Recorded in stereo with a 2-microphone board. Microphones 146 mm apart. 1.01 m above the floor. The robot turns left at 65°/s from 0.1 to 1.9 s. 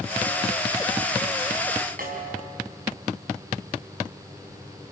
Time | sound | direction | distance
2.0 | a snare drum | 75° right (ahead or behind) | 4 m